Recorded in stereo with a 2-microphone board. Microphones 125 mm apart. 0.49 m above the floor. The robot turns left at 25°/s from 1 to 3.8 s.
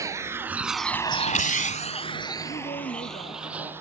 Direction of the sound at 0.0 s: 25° right (ahead or behind).